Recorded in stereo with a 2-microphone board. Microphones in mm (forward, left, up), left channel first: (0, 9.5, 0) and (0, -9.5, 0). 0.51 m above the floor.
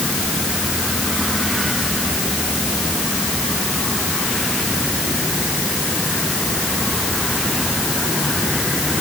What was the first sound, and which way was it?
Only background noise.